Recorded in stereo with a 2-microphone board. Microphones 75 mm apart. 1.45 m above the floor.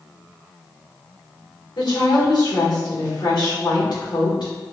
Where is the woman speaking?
90° left, 1.7 m.